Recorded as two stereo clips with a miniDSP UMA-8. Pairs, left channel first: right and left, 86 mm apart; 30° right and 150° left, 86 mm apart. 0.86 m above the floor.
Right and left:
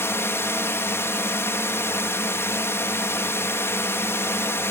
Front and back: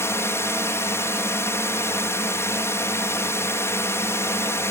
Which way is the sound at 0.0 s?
60° right.